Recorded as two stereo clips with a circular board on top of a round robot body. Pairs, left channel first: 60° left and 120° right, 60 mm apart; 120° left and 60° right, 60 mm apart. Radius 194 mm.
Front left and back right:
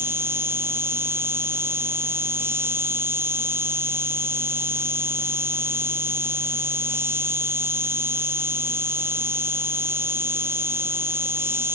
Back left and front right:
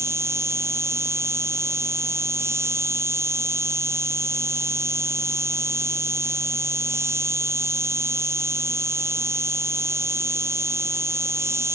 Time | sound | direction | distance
0.0 | an insect | 80° right | ?